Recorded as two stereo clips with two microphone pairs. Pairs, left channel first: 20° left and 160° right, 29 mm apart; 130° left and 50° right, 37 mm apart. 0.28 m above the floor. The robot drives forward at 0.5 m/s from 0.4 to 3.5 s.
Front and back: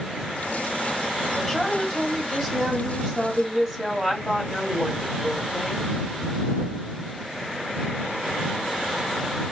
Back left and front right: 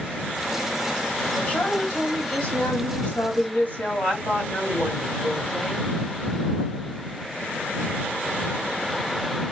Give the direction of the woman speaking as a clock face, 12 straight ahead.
8 o'clock.